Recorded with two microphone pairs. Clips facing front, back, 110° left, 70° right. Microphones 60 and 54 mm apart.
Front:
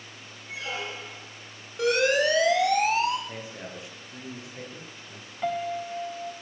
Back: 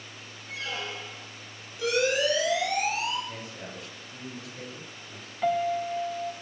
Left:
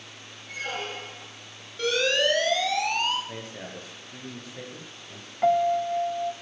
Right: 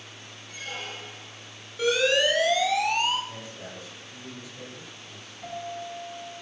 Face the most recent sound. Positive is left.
turn(degrees=95)